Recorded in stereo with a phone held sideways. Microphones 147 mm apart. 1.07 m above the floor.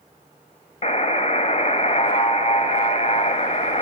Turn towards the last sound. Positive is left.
turn(degrees=50)  # may be behind; listen again after turning